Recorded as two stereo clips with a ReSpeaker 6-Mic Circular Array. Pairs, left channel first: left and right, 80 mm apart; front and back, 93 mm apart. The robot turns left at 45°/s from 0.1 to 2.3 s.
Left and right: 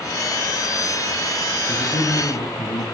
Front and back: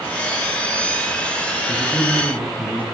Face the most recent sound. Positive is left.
turn(degrees=70)